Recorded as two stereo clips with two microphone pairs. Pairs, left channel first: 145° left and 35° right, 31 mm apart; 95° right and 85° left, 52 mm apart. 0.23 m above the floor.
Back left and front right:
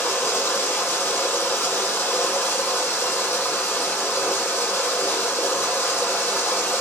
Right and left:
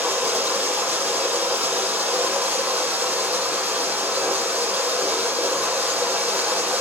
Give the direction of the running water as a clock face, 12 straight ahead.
7 o'clock.